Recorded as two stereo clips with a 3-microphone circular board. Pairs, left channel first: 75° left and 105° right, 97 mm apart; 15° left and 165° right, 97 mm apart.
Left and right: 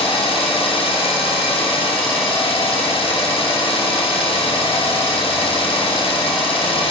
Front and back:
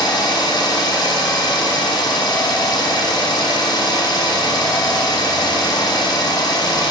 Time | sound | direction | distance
0.0 | an engine running | 60° left | 0.7 m